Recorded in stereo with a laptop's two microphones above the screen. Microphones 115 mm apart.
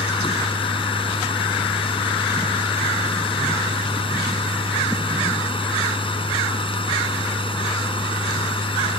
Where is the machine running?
50° left (ahead or behind).